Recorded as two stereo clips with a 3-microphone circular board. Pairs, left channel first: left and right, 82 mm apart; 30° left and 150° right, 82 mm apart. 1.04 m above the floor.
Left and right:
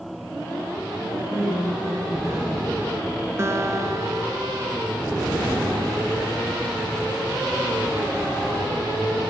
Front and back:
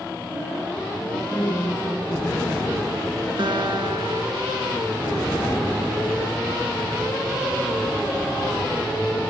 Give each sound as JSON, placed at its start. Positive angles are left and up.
{"t": 1.0, "sound": "a woman speaking", "azimuth_deg": -35, "distance_m": 10.0}
{"t": 3.4, "sound": "a guitar", "azimuth_deg": -145, "distance_m": 2.0}